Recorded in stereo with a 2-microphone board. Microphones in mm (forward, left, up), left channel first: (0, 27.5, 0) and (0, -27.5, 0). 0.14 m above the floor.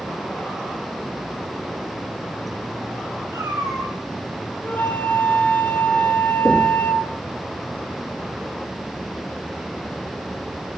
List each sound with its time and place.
3.3 s a cat meowing: 85° right, 9.5 m
4.6 s a flute: 35° left (ahead or behind), 2.5 m
6.5 s knocking: 40° right (ahead or behind), 6 m